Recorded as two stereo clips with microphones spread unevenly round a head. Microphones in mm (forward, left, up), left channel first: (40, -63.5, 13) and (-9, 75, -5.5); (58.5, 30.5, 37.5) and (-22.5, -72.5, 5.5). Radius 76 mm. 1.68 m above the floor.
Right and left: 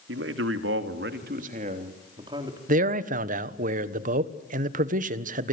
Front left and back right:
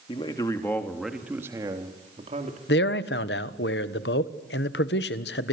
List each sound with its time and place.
0.1 s a man speaking: 110° left, 3 m; by 2.6 s straight behind, 3.5 m
2.7 s a man speaking: 75° left, 1.4 m